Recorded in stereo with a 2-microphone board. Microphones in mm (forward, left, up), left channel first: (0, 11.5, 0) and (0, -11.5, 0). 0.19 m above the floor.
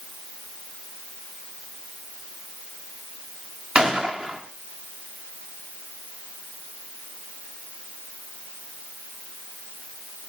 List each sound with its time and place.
3.8 s a gunshot: 55° right (ahead or behind), 6 m